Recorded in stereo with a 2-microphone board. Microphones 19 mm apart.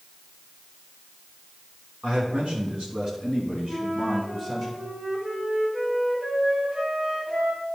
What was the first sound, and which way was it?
A man speaking, 70° right (ahead or behind).